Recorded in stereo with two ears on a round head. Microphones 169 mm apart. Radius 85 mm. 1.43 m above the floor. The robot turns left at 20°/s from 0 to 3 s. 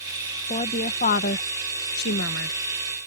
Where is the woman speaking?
145° left; by 2.6 s 105° left.